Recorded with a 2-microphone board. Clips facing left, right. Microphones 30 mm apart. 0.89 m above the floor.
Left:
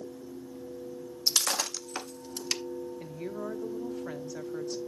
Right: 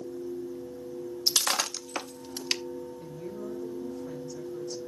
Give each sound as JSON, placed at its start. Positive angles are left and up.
{"t": 1.3, "sound": "breaking glass", "side_deg": -30, "distance_m": 0.6}
{"t": 3.0, "sound": "a woman speaking", "side_deg": 65, "distance_m": 1.4}